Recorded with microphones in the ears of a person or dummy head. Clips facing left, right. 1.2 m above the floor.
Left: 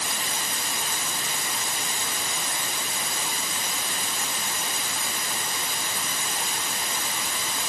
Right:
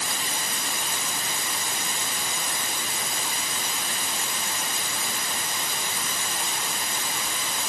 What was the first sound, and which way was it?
Only background noise.